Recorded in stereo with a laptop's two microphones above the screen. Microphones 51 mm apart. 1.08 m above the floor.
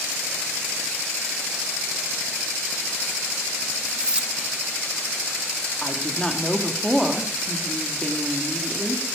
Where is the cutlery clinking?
20° right (ahead or behind), 0.6 m.